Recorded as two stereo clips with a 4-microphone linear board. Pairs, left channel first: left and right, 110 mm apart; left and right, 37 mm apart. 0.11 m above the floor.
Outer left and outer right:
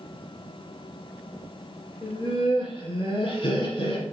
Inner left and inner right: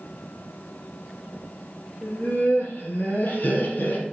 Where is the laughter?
60° left (ahead or behind), 3.5 m.